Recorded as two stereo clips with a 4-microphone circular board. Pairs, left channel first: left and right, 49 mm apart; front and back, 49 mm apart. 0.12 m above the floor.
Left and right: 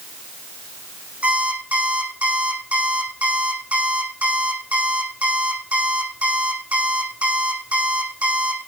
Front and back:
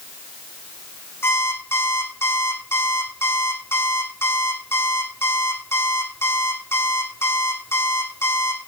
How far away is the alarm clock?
About 5 m.